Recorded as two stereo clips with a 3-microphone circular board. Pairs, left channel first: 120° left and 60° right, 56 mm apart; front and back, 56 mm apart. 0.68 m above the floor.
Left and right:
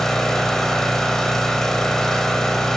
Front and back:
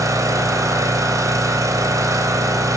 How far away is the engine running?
About 2.5 m.